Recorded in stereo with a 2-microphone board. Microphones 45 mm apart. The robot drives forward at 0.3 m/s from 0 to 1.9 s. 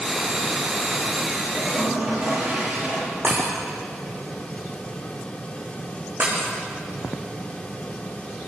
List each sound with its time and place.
1.6 s a toilet flushing: 30° right (ahead or behind), 10 m
3.2 s breaking glass: 55° right (ahead or behind), 6.5 m